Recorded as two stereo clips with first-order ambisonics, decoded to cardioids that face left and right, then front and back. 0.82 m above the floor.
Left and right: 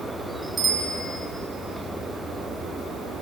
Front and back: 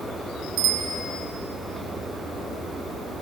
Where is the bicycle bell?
165° right, 4.5 m.